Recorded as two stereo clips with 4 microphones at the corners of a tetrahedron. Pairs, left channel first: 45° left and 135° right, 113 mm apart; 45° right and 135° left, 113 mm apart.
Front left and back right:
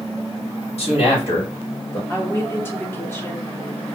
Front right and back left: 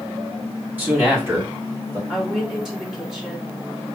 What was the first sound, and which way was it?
A man speaking, 65° left.